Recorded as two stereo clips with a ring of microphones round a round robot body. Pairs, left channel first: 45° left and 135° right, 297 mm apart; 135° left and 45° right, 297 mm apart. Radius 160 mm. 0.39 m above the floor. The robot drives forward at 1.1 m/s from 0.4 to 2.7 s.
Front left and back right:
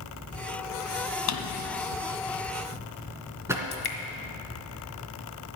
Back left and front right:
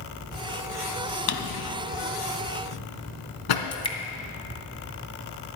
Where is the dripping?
60° left, 1.8 m.